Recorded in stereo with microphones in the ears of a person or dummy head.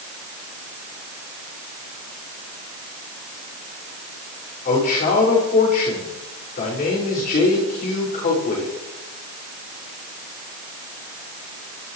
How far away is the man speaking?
About 6 m.